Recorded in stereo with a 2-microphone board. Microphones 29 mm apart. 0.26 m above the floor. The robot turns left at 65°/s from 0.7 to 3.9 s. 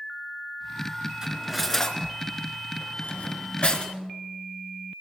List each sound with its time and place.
1.2 s cutlery clinking: 20° right (ahead or behind), 1.8 m; by 3.9 s 25° left (ahead or behind), 1.8 m